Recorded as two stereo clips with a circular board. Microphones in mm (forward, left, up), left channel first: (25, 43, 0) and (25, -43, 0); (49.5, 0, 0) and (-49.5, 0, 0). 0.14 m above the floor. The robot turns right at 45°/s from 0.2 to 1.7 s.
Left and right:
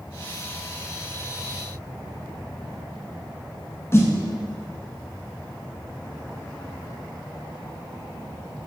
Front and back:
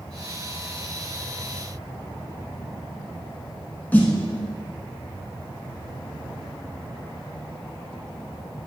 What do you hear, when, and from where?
3.9 s a snare drum: 60° left, 1.3 m